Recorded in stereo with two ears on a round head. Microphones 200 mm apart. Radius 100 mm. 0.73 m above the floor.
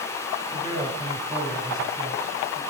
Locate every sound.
0.5 s a man speaking: 25° right (ahead or behind), 4.5 m; by 2.6 s 20° right (ahead or behind), 6 m